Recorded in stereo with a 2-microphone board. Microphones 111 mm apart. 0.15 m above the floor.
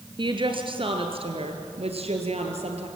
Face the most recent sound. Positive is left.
turn(degrees=-70)  # may be behind; listen again after turning